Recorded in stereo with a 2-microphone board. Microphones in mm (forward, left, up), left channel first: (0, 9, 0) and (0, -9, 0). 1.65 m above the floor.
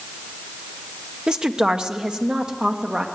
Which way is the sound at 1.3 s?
50° right (ahead or behind).